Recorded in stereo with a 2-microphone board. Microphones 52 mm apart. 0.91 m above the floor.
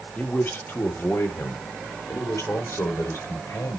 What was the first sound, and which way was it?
A man speaking, 30° left (ahead or behind).